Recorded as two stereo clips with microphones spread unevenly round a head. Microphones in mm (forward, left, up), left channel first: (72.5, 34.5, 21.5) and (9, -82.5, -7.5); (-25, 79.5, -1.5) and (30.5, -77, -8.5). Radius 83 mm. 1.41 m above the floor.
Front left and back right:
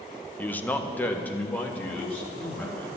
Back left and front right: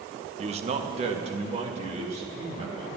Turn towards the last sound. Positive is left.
turn(degrees=-15)